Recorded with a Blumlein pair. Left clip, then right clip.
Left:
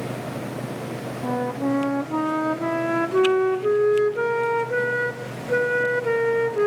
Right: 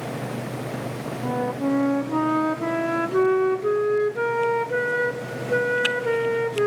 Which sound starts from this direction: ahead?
A flute, at 1.2 s.